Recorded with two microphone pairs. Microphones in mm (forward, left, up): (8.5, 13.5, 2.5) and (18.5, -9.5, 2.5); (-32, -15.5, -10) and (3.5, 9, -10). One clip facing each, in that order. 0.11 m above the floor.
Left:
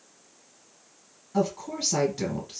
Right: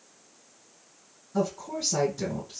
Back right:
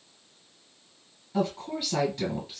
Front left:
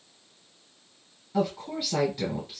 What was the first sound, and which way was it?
A woman speaking, 110° left.